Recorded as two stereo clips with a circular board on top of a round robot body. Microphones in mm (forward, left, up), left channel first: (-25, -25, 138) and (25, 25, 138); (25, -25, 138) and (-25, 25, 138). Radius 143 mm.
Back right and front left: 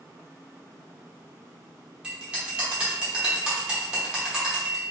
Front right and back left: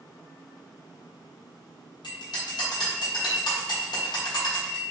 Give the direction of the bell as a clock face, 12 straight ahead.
1 o'clock.